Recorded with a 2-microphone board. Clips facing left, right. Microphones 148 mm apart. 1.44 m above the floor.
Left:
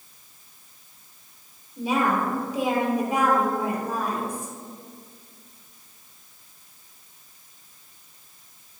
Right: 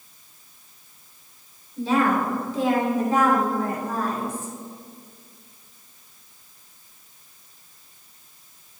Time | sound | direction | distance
1.8 | a woman speaking | 15° left (ahead or behind) | 4 m